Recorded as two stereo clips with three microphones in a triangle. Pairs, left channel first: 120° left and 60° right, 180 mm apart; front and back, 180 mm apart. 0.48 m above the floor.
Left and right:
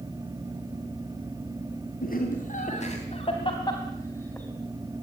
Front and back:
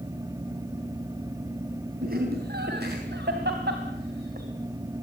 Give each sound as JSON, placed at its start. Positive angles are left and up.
{"t": 2.0, "sound": "laughter", "azimuth_deg": 155, "distance_m": 3.5}